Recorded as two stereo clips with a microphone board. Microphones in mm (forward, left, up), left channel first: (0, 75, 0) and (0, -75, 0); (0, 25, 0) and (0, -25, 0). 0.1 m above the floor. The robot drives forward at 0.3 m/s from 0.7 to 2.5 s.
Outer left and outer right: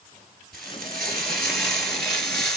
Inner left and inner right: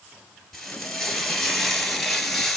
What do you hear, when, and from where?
0.5 s frying: centre (ahead or behind), 2.5 m; by 2.6 s 5° left (ahead or behind), 2.0 m